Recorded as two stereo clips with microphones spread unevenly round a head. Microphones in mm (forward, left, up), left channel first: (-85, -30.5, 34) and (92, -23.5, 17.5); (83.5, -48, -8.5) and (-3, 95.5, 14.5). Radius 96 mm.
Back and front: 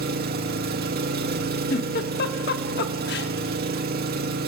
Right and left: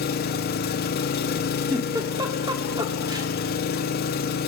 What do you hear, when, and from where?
0.0 s an engine running: 30° right, 1.5 m
1.7 s a giggle: 175° right, 1.4 m